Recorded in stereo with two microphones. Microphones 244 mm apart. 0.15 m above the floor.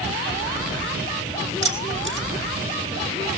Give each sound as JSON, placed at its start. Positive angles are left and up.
{"t": 1.6, "sound": "keys jangling", "side_deg": -55, "distance_m": 4.0}